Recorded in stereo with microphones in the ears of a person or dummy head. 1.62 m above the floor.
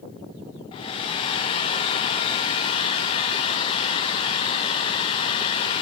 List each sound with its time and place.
0.7 s a hair dryer: 20° left (ahead or behind), 1.0 m